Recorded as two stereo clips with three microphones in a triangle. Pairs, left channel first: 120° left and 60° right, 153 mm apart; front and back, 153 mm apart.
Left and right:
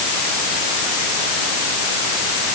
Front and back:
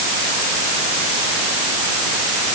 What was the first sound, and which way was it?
Only background noise.